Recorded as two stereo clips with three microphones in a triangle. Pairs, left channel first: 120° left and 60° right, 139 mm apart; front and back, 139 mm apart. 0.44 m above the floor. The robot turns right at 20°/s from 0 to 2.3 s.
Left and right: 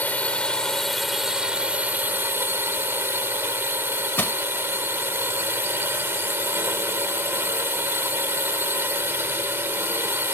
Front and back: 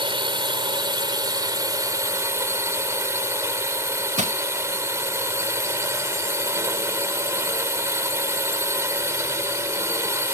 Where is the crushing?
165° right.